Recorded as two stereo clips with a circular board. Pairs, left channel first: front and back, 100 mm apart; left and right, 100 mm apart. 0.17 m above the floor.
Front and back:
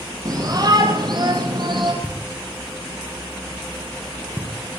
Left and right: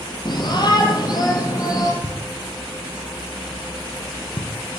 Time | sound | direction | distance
0.2 | a shout | 130° left | 6 m
2.0 | knocking | 105° left | 6 m